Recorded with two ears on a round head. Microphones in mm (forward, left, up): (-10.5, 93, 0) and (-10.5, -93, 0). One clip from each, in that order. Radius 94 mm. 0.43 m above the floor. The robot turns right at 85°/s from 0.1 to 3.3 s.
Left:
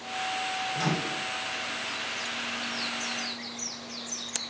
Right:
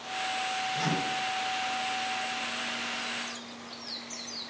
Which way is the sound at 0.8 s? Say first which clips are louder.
Even; 10° left (ahead or behind).